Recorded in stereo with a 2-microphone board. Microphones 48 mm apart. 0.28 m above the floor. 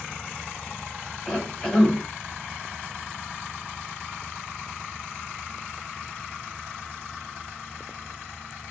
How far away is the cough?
About 1.2 m.